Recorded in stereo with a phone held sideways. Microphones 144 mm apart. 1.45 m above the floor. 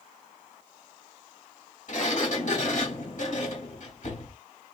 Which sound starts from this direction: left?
A sliding door, at 1.9 s.